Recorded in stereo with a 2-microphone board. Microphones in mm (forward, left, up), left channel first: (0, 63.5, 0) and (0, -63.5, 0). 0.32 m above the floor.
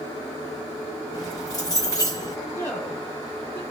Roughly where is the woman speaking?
Centre.